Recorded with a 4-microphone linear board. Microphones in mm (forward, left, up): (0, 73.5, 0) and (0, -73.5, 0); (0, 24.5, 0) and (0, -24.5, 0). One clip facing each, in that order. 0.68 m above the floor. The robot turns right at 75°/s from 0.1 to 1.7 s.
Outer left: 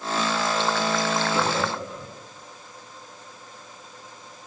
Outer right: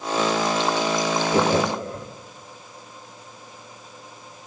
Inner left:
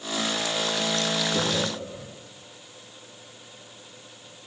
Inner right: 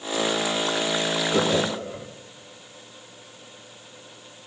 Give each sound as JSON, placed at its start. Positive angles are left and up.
{"t": 1.3, "sound": "laughter", "side_deg": -35, "distance_m": 1.2}